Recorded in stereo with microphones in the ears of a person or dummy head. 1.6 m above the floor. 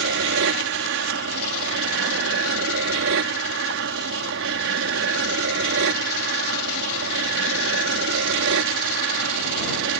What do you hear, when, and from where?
0.0 s an aircraft: 60° right (ahead or behind)